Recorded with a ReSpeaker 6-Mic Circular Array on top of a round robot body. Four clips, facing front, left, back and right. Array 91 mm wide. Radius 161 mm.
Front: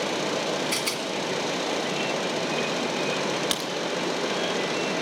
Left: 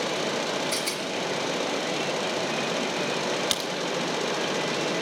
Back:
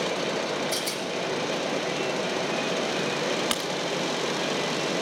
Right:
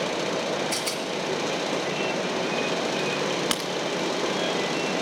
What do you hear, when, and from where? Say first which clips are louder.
0.7 s a rattle: right 1 dB, front 1 dB; 20° right, 1.8 m
3.5 s a crack: right 2 dB, even; 115° right, 1.1 m